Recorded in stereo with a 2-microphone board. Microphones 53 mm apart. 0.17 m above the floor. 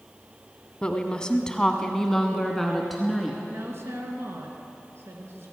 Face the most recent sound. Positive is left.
turn(degrees=-55)  # may be behind; listen again after turning